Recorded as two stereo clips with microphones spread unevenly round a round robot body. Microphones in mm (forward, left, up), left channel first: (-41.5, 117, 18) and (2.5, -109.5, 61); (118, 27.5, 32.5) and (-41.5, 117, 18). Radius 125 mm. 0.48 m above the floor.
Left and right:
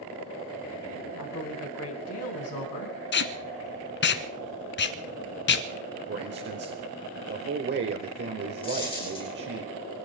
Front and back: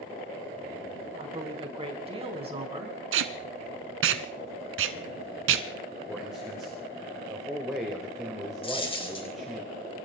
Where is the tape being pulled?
145° left, 1.2 m.